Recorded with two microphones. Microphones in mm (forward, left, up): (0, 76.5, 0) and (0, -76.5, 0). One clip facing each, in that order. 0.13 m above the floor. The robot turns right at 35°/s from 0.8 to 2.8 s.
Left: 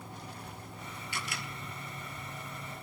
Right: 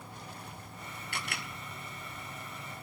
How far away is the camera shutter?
About 1.8 m.